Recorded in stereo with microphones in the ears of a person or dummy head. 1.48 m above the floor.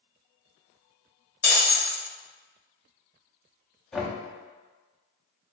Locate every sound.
1.4 s breaking glass: 10° left (ahead or behind), 1.1 m
3.9 s knocking: centre (ahead or behind), 0.6 m